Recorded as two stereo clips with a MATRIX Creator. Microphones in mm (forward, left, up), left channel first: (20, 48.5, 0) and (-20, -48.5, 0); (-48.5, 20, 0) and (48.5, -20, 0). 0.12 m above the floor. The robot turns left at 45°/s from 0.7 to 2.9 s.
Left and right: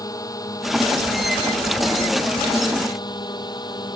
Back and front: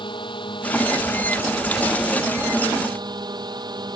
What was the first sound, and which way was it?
A drone, 120° left.